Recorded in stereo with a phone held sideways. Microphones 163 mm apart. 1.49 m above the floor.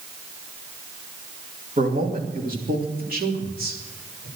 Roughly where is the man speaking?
Right.